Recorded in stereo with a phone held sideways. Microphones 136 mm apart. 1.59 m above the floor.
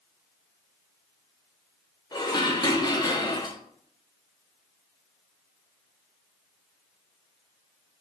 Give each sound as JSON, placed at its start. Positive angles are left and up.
{"t": 2.1, "sound": "dishes clattering", "side_deg": 30, "distance_m": 0.6}